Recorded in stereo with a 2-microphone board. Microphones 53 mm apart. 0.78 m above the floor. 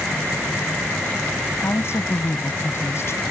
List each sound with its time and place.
1.6 s a woman speaking: 55° left (ahead or behind)